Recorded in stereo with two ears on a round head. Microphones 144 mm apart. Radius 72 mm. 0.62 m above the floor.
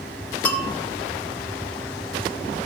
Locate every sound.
0.5 s a bell: 10° left (ahead or behind), 1.3 m